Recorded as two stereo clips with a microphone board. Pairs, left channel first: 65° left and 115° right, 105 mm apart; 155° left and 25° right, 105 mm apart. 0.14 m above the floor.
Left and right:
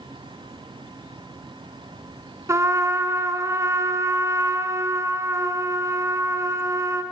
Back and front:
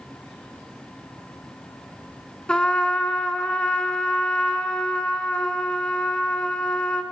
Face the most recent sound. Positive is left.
turn(degrees=-130)